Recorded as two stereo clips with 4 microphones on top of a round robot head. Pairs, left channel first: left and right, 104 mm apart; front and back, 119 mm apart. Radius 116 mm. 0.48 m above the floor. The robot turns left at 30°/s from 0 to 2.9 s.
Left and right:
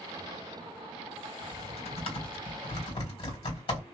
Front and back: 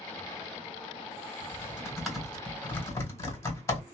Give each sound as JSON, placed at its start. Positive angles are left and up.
{"t": 1.4, "sound": "typing on a keyboard", "azimuth_deg": 105, "distance_m": 1.7}